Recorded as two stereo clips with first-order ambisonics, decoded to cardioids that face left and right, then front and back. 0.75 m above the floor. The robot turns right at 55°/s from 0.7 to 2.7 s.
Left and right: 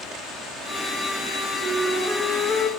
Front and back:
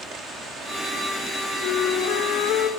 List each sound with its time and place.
1.6 s a flute: 40° right, 3 m; by 2.7 s 20° left, 3 m